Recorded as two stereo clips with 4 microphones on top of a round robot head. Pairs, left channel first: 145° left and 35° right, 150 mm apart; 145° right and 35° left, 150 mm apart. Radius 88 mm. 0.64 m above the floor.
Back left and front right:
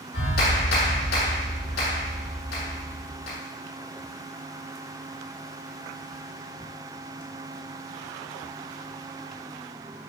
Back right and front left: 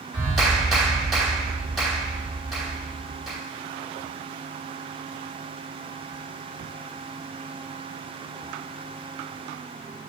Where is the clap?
125° left, 2.5 m.